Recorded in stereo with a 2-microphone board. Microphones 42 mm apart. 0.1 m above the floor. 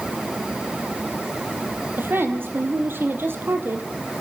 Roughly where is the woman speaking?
Right.